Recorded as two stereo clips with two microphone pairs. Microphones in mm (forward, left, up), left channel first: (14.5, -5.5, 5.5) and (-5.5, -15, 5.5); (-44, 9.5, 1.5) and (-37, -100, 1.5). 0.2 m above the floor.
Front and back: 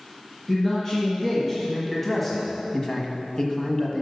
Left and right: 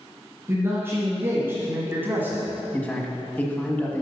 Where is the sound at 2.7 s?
35° left, 1.4 m.